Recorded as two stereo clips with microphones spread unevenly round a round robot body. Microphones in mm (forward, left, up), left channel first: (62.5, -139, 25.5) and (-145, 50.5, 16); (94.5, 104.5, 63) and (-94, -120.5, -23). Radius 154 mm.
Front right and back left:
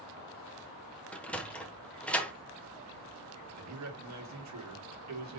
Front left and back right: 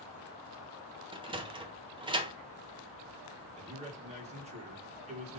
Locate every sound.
1.1 s a sliding door: 130° right, 0.7 m
3.6 s a man speaking: 165° left, 1.6 m